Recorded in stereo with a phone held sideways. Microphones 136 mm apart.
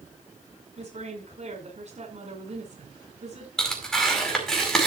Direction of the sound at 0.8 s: 55° right (ahead or behind).